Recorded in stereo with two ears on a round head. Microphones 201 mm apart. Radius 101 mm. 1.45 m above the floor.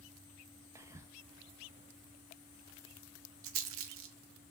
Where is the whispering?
15° right (ahead or behind), 0.7 m.